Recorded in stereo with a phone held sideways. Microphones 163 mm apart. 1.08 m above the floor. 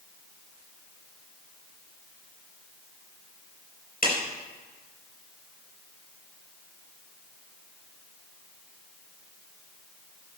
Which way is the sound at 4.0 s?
65° left (ahead or behind).